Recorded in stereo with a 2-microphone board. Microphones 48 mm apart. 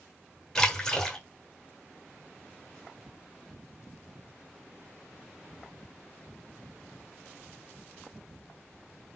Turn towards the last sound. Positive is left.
turn(degrees=15)  # may be behind; listen again after turning